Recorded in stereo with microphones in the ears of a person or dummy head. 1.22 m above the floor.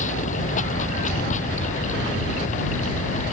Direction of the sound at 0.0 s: 40° left (ahead or behind).